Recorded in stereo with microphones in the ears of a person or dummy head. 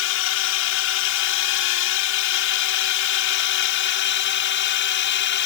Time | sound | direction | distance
0.0 | a drone | 70° left (ahead or behind) | ?